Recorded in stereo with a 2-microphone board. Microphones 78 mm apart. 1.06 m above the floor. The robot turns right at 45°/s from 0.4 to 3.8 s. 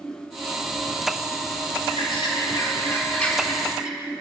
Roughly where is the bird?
Left.